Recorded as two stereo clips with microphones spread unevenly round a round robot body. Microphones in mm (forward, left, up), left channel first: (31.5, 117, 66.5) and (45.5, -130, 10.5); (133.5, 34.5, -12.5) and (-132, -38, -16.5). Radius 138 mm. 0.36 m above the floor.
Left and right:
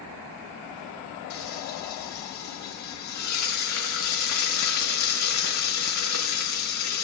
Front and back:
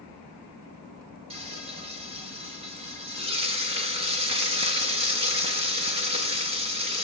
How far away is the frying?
About 4.5 m.